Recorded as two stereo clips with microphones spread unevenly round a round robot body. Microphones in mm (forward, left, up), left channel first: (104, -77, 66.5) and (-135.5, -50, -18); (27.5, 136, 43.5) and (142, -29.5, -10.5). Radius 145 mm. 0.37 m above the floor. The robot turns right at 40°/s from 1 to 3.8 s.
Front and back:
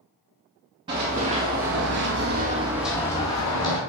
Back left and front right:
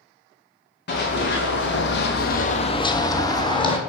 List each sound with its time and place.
0.9 s running footsteps: 95° left, 1.7 m; by 3.8 s 65° left, 1.2 m